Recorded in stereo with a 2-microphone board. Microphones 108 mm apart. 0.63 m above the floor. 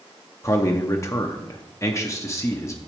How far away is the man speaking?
About 0.6 m.